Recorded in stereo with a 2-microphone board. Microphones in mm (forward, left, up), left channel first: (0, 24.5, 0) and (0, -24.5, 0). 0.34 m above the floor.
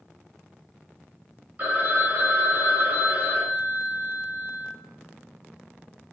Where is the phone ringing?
35° right (ahead or behind), 0.9 m.